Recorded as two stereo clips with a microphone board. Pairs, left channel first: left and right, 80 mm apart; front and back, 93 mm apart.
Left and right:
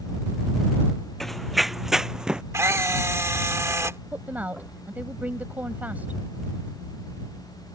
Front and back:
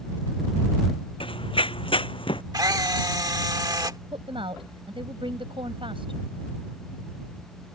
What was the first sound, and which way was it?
Running footsteps, 5° left.